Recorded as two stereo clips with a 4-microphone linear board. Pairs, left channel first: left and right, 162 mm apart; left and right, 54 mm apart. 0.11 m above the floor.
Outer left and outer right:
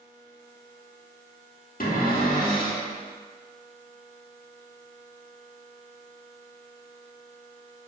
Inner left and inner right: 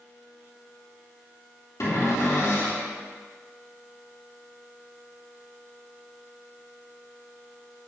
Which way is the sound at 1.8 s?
60° left (ahead or behind).